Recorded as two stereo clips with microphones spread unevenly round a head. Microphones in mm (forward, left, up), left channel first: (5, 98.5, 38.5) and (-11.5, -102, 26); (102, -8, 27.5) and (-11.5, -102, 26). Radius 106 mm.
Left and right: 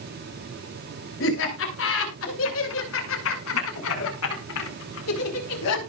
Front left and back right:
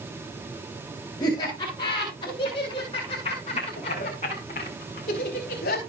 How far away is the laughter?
About 7.5 m.